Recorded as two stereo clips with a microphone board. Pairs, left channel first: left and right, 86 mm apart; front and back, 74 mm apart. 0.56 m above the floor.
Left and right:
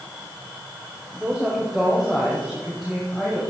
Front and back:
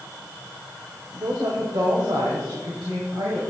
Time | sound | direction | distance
1.1 | a woman speaking | 165° right | 1.7 m